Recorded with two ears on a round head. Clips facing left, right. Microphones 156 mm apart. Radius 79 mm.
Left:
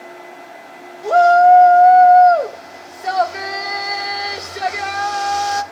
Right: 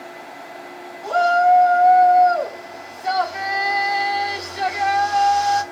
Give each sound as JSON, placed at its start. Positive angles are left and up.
{"t": 1.0, "sound": "a shout", "side_deg": 65, "distance_m": 3.0}